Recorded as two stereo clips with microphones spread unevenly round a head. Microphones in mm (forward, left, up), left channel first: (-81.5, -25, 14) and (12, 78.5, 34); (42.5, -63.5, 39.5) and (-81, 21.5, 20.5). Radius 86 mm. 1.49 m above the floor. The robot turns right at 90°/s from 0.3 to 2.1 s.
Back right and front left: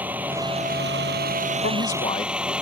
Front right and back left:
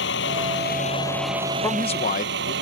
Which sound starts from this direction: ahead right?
A vehicle, at 0.0 s.